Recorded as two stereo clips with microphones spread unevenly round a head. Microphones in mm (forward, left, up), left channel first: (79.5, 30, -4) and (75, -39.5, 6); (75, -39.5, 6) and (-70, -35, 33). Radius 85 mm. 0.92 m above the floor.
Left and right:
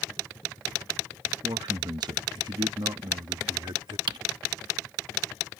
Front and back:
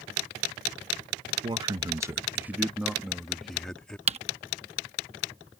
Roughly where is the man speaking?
Behind right.